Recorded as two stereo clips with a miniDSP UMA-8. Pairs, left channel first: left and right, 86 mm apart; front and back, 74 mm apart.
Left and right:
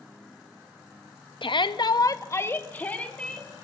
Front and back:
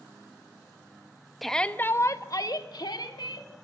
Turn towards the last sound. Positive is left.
turn(degrees=10)